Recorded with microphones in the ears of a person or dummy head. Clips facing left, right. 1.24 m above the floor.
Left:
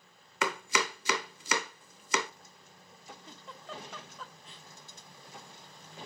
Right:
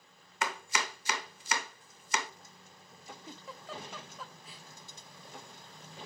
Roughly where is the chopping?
Left.